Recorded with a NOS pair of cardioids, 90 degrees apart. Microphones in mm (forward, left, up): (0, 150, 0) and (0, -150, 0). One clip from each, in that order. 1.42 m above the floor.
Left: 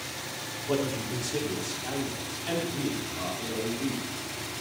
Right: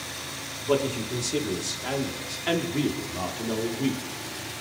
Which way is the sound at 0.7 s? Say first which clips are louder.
Right 4 dB; 35° right.